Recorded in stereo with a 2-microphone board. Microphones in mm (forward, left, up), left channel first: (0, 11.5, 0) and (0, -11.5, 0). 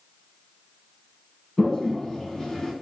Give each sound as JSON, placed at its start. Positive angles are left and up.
{"t": 1.6, "sound": "a toilet flushing", "side_deg": 35, "distance_m": 2.0}